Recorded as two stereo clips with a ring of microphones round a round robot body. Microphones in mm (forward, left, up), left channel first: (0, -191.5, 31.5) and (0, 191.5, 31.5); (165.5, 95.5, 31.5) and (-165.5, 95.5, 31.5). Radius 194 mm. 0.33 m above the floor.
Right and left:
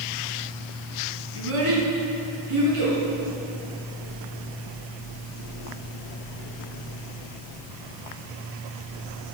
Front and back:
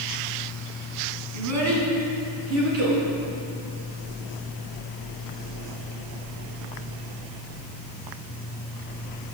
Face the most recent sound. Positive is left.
turn(degrees=135)